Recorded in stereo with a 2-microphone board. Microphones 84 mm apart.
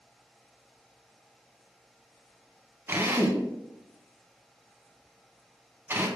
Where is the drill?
25° right (ahead or behind), 0.8 m.